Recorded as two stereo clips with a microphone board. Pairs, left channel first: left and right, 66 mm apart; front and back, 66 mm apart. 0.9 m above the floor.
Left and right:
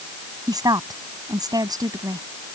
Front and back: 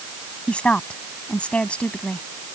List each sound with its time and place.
0.5 s a woman speaking: 75° right